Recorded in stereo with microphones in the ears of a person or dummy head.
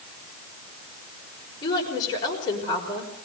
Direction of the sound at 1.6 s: 20° left (ahead or behind).